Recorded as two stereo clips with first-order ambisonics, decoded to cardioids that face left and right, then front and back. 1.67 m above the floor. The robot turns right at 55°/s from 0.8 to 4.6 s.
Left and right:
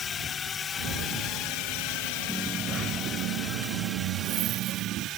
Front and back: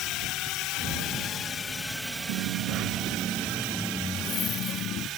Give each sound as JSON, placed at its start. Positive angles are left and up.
{"t": 0.0, "sound": "a drone", "azimuth_deg": 30}
{"t": 2.3, "sound": "a dropped coin", "azimuth_deg": -175}